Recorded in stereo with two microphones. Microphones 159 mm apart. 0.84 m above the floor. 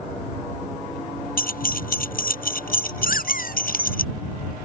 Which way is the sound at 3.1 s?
70° left (ahead or behind).